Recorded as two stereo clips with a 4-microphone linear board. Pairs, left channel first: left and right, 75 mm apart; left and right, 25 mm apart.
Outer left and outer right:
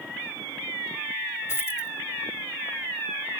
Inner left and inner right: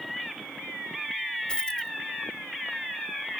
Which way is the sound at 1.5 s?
35° left (ahead or behind).